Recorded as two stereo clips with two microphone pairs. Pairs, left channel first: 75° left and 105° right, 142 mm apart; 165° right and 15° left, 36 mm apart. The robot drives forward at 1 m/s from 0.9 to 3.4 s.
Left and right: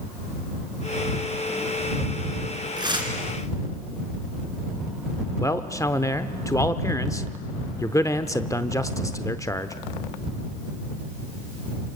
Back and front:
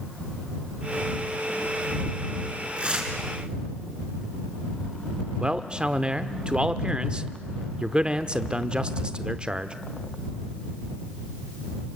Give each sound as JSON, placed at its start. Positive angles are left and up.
{"t": 2.8, "sound": "tearing paper", "azimuth_deg": -45, "distance_m": 4.0}
{"t": 5.4, "sound": "a man speaking", "azimuth_deg": 30, "distance_m": 0.8}